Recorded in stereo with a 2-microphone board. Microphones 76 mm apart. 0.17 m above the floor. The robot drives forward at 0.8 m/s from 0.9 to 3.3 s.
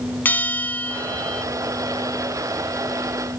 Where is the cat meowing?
I don't hear a cat meowing.